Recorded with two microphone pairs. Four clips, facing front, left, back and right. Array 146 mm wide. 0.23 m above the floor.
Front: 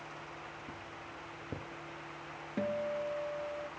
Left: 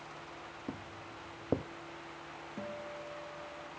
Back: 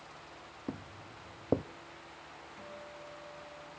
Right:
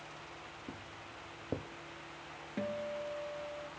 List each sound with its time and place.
0.7 s footsteps: 150° left, 0.7 m
2.6 s a guitar: 15° right, 0.8 m